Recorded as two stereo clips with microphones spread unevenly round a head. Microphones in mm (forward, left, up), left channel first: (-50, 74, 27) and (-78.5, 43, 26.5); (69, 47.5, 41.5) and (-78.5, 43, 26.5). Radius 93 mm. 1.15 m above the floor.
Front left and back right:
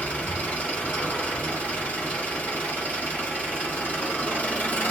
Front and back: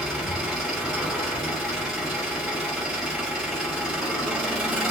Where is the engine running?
85° right, 0.9 m.